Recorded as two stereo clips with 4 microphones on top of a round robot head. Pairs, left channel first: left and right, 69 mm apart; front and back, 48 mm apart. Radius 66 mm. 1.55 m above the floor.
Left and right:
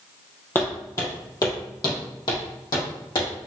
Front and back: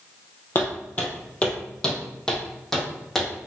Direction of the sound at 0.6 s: 30° left.